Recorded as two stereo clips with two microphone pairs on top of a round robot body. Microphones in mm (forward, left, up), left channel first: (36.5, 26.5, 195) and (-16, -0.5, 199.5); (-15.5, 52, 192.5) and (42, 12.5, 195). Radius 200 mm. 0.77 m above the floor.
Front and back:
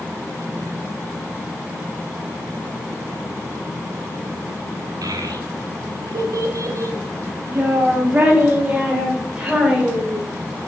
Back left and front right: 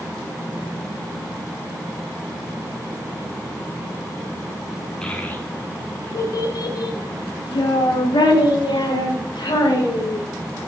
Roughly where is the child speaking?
Behind right.